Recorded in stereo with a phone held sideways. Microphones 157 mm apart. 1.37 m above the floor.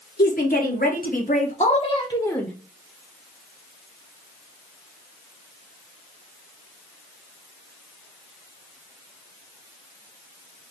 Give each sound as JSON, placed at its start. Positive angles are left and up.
{"t": 0.2, "sound": "a woman speaking", "side_deg": 75, "distance_m": 1.3}